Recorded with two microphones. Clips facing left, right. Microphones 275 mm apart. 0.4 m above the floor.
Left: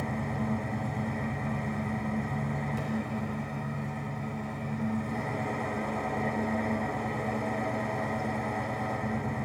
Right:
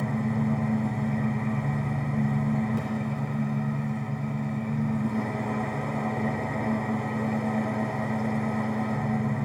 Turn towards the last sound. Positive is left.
turn(degrees=-70)  # may be behind; listen again after turning